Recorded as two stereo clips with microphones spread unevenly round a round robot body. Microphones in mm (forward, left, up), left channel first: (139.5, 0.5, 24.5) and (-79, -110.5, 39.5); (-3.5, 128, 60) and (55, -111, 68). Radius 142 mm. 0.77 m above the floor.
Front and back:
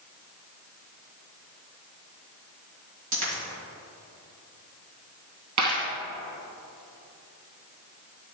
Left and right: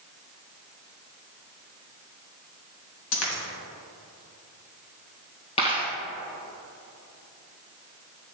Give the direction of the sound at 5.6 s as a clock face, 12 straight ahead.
6 o'clock.